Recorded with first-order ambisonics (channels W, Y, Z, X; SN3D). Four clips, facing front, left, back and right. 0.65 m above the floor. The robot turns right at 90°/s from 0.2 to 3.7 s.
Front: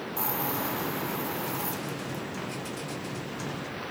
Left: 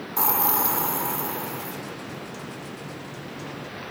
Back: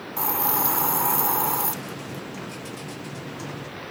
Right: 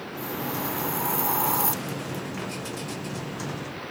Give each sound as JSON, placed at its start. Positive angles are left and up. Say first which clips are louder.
{"t": 0.2, "sound": "a hiss", "louder": "left 7 dB, back 6 dB", "azimuth_deg": 105, "distance_m": 0.7}